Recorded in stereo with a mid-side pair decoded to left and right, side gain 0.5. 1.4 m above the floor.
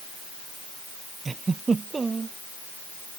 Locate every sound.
1.2 s a giggle: 30° right